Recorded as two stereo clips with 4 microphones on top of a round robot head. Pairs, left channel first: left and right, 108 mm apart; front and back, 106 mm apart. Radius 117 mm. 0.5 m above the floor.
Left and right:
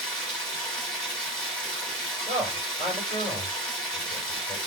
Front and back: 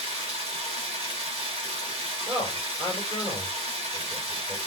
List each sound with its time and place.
0.0 s running water: 175° left, 1.9 m
2.3 s a man speaking: 130° left, 3 m